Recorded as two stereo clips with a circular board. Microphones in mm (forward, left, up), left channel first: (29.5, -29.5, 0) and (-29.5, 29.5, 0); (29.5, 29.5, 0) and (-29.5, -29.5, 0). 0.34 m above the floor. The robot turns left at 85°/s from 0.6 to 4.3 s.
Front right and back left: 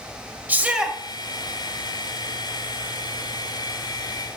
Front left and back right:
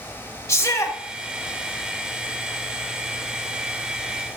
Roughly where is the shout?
Left.